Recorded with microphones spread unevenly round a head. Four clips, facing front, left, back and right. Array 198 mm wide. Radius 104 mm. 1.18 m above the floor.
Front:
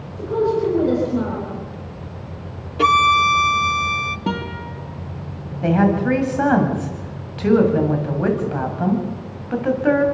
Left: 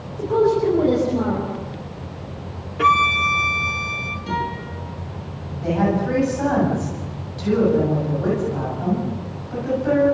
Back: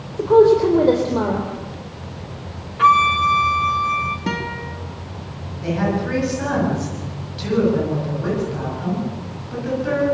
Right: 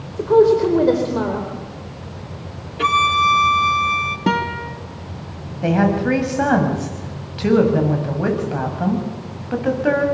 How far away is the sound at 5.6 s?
About 6.5 m.